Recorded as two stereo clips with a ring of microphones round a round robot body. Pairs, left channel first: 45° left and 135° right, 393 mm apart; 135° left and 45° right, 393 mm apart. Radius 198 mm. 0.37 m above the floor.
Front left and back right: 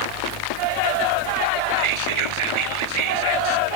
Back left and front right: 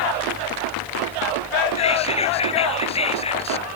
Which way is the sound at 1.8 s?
150° right.